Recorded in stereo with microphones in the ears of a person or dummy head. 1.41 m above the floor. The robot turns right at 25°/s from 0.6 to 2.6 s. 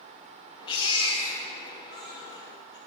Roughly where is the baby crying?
Left.